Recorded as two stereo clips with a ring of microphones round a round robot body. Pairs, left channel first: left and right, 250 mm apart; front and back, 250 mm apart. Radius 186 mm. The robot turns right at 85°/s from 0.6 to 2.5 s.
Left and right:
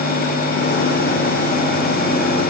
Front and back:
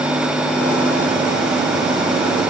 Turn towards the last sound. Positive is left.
No sound to turn to.